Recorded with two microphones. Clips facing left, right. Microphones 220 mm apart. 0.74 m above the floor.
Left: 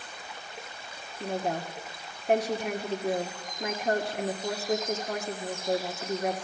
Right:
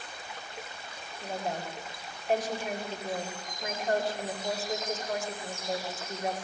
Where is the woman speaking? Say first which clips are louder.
Left 4 dB; 65° left (ahead or behind), 2 m.